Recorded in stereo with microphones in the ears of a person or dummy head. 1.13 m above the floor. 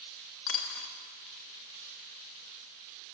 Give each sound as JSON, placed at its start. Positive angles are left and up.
{"t": 0.5, "sound": "a dropped coin", "side_deg": 70, "distance_m": 0.9}